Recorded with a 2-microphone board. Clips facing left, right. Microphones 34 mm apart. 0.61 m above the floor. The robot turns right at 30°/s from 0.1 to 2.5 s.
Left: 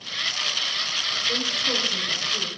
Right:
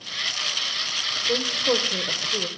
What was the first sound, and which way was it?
A woman speaking, 130° right.